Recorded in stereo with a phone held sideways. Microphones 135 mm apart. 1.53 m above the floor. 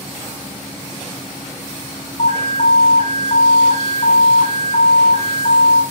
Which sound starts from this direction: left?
An alarm, at 2.2 s.